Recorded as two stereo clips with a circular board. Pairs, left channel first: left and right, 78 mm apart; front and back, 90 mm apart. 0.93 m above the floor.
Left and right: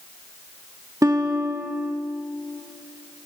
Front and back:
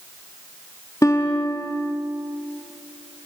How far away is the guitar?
About 2 m.